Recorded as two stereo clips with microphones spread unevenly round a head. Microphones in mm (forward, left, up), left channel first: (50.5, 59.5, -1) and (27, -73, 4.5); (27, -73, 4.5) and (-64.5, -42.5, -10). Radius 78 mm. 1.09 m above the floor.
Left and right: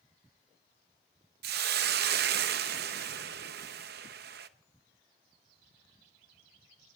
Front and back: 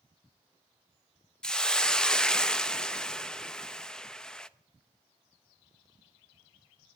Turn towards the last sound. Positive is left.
turn(degrees=-100)